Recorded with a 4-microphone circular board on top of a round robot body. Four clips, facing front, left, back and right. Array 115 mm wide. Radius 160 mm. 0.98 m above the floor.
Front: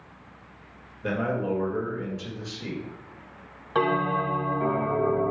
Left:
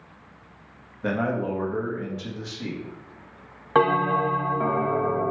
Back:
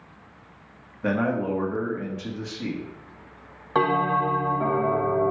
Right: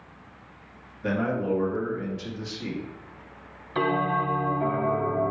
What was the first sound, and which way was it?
A man speaking, 145° left.